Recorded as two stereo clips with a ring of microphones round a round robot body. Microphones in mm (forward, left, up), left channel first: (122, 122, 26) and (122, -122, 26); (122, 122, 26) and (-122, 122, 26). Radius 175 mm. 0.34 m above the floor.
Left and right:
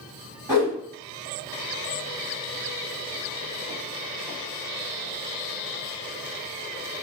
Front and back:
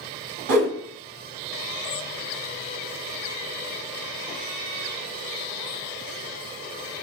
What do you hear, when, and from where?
0.5 s a whoosh: 170° right, 0.9 m